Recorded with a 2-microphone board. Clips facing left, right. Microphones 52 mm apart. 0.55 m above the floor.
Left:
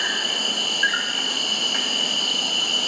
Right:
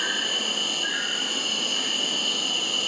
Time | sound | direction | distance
0.0 | an insect | 80° left | 1.4 m